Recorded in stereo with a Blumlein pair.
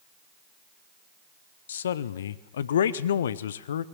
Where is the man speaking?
60° left, 0.9 m.